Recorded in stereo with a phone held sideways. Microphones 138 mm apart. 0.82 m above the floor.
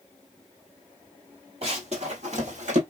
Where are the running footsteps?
50° right (ahead or behind), 1.8 m; by 2.8 s 60° right (ahead or behind), 1.6 m.